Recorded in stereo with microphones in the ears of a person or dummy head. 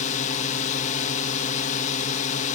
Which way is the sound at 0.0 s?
40° left (ahead or behind).